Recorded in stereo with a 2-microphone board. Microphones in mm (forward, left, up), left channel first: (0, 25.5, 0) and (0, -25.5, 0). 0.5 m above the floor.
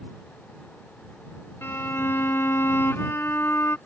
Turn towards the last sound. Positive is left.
turn(degrees=50)  # may be behind; listen again after turning